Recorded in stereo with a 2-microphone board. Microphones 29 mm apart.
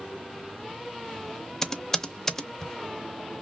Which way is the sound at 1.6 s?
20° left (ahead or behind).